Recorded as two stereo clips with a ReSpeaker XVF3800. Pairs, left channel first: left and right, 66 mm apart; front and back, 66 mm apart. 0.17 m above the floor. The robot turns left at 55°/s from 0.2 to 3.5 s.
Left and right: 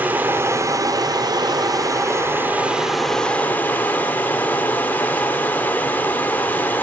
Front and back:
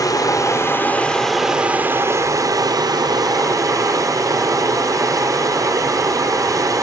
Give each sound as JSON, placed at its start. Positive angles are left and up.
{"t": 0.0, "sound": "running water", "azimuth_deg": -25, "distance_m": 1.2}